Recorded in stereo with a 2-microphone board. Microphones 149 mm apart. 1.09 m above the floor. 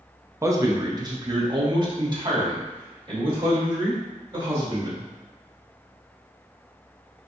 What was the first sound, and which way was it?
A man speaking, 20° right (ahead or behind).